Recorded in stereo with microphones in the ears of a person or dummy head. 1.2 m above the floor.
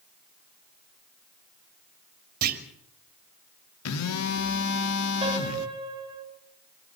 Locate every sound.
2.4 s a clunk: 45° right (ahead or behind), 3 m
3.9 s a phone buzzing: 85° left, 1.8 m
5.2 s a piano: 25° right (ahead or behind), 6.5 m